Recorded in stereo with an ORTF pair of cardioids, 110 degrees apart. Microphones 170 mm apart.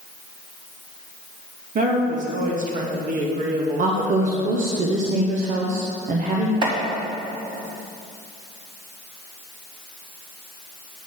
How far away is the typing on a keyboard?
No typing on a keyboard in this recording.